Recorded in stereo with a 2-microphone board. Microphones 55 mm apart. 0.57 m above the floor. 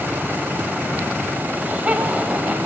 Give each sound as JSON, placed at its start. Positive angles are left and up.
{"t": 1.5, "sound": "laughter", "side_deg": -25, "distance_m": 3.5}